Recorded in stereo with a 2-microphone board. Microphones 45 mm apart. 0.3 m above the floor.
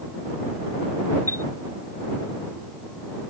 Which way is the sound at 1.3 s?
70° left (ahead or behind).